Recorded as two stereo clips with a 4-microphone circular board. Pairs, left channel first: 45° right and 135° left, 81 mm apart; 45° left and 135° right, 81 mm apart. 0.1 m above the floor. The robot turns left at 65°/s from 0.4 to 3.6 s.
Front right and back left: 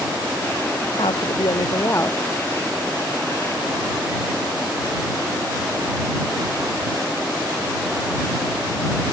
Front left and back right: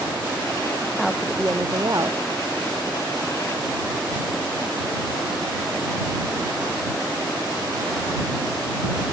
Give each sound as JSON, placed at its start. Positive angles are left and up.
{"t": 1.0, "sound": "a woman speaking", "azimuth_deg": -35}